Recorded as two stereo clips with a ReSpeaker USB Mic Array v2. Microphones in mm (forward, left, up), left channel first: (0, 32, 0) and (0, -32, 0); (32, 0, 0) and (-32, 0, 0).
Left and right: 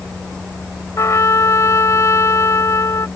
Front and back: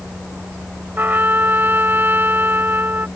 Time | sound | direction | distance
1.0 | a trumpet | 125° left | ?